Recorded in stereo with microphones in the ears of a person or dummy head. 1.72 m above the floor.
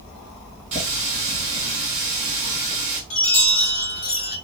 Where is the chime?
40° left (ahead or behind), 1.2 m.